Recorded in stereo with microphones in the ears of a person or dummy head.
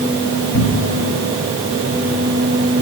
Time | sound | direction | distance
0.5 | a cupboard door | 55° left (ahead or behind) | 5.5 m